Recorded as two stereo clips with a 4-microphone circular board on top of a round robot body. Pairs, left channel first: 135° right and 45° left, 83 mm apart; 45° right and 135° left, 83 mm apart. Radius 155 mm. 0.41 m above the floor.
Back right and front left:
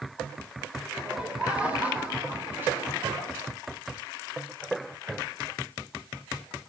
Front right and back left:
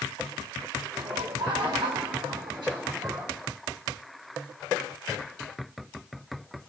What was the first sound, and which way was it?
Laughter, 125° left.